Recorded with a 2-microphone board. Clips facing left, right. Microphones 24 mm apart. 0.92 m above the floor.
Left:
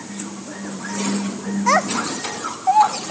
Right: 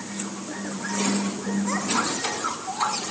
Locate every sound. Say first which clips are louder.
1.7 s a child speaking: left 9 dB; 70° left (ahead or behind), 0.8 m